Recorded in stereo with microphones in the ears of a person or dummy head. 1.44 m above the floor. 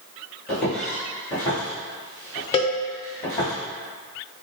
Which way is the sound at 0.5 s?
10° left (ahead or behind).